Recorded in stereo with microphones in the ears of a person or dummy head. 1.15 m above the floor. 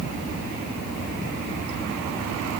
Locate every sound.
Only background noise.